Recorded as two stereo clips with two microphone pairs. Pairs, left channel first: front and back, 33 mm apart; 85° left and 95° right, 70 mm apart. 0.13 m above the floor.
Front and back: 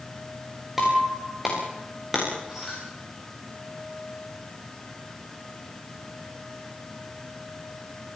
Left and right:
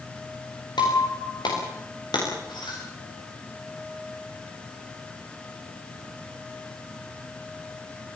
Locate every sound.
0.8 s breaking glass: 100° left, 8.5 m